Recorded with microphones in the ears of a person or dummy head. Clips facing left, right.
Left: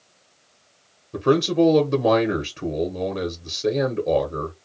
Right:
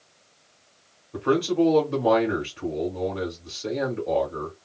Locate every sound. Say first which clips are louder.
1.1 s a man speaking: left 3 dB; 40° left (ahead or behind), 0.8 m